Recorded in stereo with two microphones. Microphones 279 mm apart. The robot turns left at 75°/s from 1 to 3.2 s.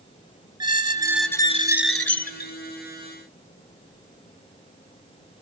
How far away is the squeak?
About 0.6 m.